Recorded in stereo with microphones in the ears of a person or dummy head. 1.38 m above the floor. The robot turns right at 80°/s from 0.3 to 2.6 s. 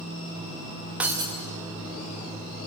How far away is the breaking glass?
About 0.9 m.